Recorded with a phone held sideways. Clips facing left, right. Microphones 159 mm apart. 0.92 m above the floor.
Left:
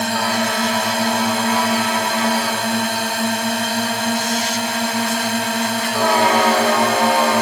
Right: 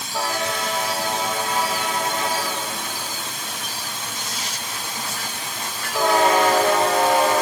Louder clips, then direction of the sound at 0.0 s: Left 6 dB; 70° left (ahead or behind).